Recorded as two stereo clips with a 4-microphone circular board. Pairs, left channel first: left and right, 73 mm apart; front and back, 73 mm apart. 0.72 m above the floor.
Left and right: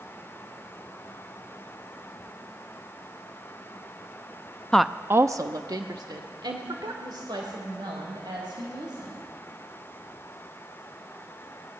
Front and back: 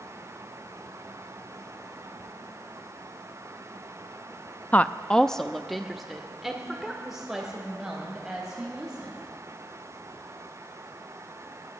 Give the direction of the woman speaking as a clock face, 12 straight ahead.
11 o'clock.